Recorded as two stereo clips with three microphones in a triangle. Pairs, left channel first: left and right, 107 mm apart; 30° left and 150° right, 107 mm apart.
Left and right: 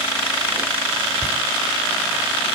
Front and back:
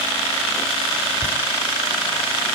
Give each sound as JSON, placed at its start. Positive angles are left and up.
{"t": 1.2, "sound": "laughter", "azimuth_deg": -145, "distance_m": 1.6}